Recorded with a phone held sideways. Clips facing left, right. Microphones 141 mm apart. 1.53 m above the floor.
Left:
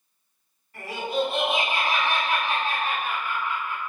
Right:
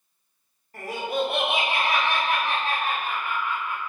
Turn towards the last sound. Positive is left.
turn(degrees=-30)  # may be behind; listen again after turning